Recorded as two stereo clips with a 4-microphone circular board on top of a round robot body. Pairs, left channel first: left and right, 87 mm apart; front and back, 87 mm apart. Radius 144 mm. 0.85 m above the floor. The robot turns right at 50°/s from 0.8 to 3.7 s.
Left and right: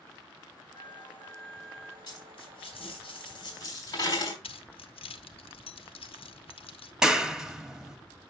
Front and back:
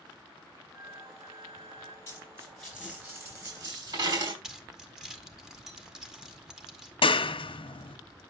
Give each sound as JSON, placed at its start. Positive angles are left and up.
{"t": 0.8, "sound": "a flute", "azimuth_deg": 135, "distance_m": 0.6}
{"t": 2.1, "sound": "a dropped coin", "azimuth_deg": 60, "distance_m": 4.0}
{"t": 4.4, "sound": "keys jangling", "azimuth_deg": 95, "distance_m": 0.9}
{"t": 7.0, "sound": "a clap", "azimuth_deg": -5, "distance_m": 0.9}